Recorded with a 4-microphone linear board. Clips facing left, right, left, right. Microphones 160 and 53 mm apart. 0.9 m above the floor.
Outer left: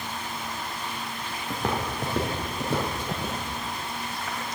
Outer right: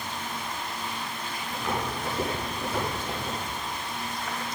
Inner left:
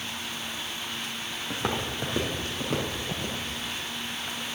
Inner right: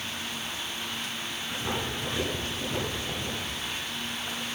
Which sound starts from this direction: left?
Footsteps, at 1.5 s.